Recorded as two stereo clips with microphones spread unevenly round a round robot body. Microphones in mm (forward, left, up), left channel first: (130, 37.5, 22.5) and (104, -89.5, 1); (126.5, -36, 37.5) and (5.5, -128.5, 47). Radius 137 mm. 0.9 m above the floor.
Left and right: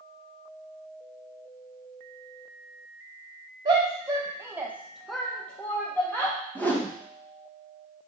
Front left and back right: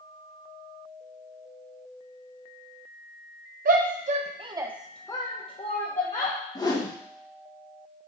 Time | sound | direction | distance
3.6 | a shout | 155° right | 0.9 m
6.5 | a whoosh | 5° right | 1.1 m